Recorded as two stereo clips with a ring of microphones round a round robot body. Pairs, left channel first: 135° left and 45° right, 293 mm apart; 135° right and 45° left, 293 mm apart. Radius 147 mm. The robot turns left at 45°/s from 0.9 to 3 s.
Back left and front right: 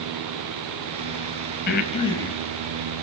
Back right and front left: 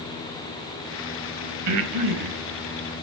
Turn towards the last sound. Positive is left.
turn(degrees=15)